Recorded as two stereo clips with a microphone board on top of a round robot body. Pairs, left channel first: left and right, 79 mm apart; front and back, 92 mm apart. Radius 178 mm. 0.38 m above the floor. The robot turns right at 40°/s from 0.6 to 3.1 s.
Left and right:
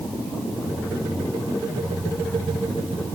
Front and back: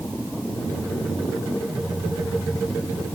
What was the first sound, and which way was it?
Only background noise.